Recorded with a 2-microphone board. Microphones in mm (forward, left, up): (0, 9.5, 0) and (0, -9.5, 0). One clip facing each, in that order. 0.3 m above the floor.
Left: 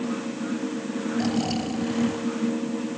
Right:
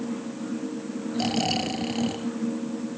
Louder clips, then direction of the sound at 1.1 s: Right 1 dB; 30° right (ahead or behind).